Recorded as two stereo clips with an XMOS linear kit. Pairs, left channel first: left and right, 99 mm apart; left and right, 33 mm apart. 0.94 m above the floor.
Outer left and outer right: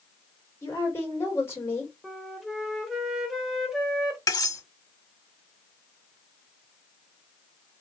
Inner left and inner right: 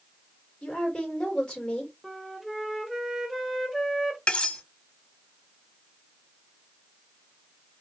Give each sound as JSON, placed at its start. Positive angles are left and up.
{"t": 0.6, "sound": "a woman speaking", "side_deg": 25, "distance_m": 1.9}
{"t": 2.0, "sound": "a flute", "side_deg": 0, "distance_m": 0.9}
{"t": 4.3, "sound": "cutlery clinking", "side_deg": 40, "distance_m": 0.9}